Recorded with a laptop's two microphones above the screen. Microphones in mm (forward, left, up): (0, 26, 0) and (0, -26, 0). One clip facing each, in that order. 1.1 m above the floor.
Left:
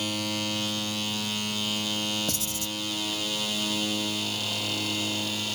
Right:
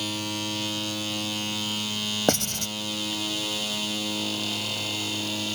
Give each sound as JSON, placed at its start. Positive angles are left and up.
{"t": 2.3, "sound": "writing", "side_deg": -55}